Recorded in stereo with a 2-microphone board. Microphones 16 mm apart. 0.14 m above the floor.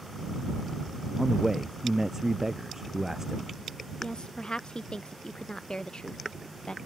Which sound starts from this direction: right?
A man speaking, at 1.2 s.